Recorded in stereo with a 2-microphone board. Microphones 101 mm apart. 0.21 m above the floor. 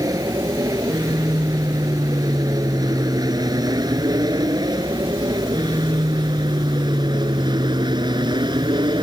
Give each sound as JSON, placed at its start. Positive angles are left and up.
{"t": 0.0, "sound": "an aircraft", "side_deg": -35}